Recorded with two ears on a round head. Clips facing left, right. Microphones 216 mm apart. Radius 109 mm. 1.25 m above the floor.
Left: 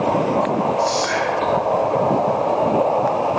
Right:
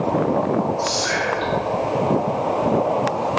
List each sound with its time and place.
0.8 s whispering: 15° right (ahead or behind), 3 m